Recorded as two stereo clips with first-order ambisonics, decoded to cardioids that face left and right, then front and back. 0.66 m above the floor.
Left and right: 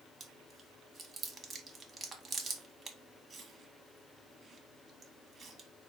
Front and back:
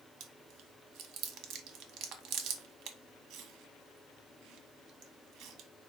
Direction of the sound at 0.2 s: 160° right.